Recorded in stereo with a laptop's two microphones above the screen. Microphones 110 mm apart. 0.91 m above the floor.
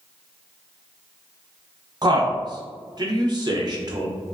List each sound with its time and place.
2.0 s a man speaking: 40° right (ahead or behind), 0.6 m